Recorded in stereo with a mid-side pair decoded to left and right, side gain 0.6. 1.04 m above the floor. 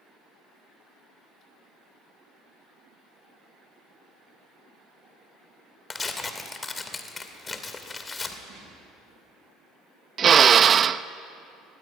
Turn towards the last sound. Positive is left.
turn(degrees=-35)